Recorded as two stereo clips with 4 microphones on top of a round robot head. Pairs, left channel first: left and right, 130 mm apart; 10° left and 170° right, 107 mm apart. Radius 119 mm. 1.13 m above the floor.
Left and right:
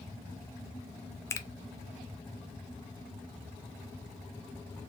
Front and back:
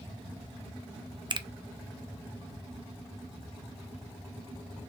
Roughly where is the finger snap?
Behind left.